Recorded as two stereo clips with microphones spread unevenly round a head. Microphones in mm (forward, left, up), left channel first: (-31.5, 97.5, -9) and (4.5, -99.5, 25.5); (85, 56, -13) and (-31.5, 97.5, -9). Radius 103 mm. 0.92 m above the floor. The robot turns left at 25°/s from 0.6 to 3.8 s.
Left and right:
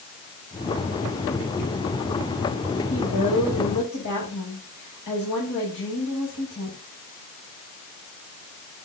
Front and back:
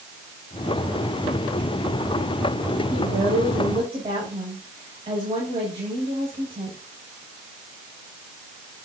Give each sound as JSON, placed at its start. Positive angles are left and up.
{"t": 2.9, "sound": "a woman speaking", "azimuth_deg": 135, "distance_m": 7.0}